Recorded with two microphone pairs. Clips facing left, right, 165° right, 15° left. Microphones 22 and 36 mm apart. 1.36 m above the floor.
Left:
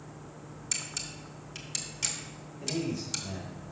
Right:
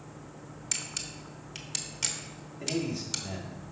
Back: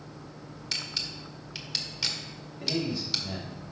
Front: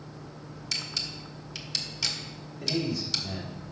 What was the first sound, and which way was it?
A camera shutter, 130° right.